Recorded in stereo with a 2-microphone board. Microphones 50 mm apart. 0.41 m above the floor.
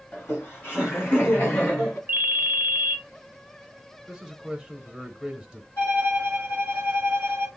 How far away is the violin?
About 3 m.